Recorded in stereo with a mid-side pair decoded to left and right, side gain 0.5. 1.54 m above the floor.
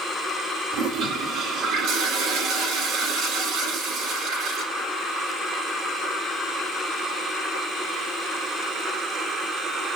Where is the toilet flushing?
70° right, 4 m.